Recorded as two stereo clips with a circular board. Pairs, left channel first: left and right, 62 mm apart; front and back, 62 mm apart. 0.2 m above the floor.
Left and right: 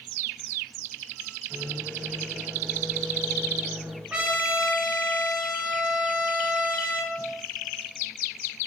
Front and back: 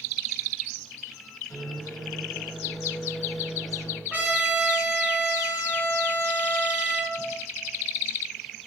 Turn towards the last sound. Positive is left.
turn(degrees=-160)